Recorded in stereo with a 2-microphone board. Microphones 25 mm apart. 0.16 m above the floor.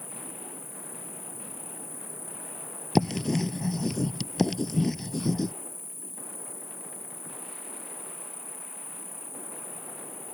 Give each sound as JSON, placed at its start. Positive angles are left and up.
{"t": 0.0, "sound": "an insect", "side_deg": 5}
{"t": 3.0, "sound": "writing", "side_deg": 10}